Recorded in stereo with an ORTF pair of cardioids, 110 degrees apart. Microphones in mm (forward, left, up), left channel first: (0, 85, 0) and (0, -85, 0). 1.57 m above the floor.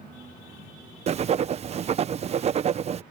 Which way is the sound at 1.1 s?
40° right.